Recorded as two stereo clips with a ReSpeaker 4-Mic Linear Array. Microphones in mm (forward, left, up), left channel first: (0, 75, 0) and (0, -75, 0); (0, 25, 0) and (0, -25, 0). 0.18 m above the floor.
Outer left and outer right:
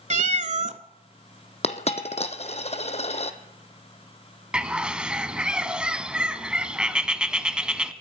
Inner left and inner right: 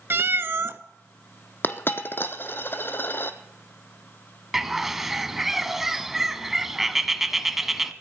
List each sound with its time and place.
0.1 s a cat meowing: 55° right (ahead or behind), 0.5 m
1.6 s a dropped coin: 45° left (ahead or behind), 0.9 m
4.5 s a bird: 5° right (ahead or behind), 0.7 m